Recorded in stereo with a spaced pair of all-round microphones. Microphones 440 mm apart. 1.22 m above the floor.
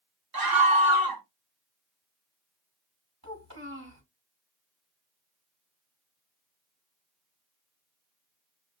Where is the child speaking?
40° right (ahead or behind), 1.5 m.